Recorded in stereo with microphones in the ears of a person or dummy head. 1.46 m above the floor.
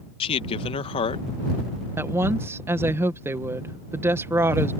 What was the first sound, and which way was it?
A man speaking, 25° left (ahead or behind).